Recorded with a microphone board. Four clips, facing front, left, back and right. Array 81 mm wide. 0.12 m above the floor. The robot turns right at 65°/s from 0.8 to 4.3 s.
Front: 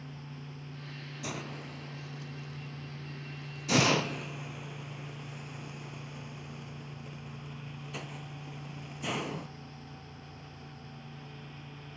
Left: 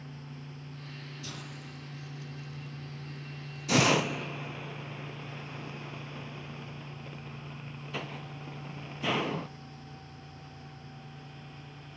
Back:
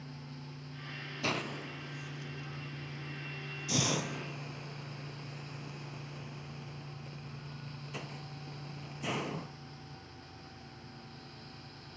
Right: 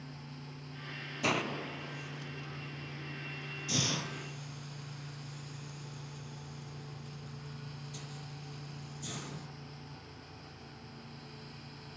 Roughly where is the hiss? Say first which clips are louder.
Right 16 dB, back 4 dB; behind right.